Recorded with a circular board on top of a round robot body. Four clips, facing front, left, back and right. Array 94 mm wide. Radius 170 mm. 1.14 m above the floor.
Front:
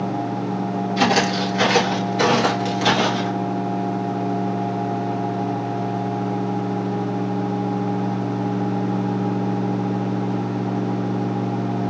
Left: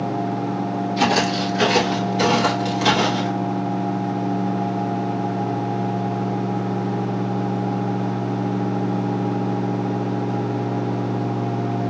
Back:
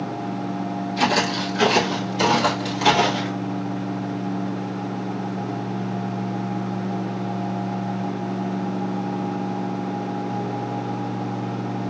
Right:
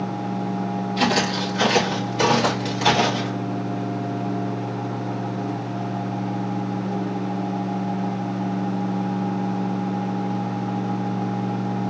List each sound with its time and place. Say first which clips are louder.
1.0 s footsteps: left 2 dB, front 3 dB; 5° left, 1.5 m; by 3.3 s 175° right, 1.1 m